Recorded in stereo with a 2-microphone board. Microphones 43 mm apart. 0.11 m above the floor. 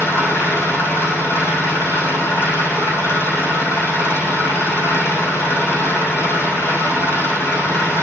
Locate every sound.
0.0 s an engine running: 75° left (ahead or behind), 5 m